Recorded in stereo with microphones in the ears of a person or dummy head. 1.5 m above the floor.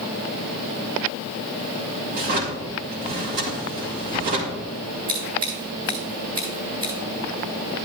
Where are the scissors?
30° right (ahead or behind), 2.5 m.